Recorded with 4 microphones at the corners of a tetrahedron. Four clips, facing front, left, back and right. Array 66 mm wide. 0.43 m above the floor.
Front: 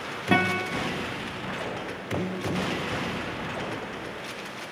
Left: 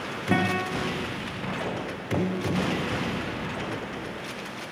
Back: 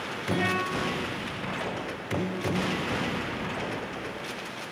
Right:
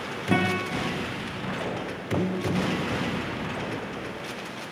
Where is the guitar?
20° left, 9 m.